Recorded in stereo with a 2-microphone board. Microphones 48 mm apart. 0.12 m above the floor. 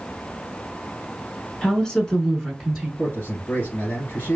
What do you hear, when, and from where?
1.6 s a woman speaking: 15° left (ahead or behind), 1.1 m; by 2.9 s centre (ahead or behind), 1.1 m
3.0 s a man speaking: 40° left (ahead or behind), 1.8 m